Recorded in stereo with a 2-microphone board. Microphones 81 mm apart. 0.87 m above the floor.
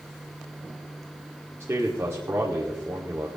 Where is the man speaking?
35° right (ahead or behind), 1.8 m.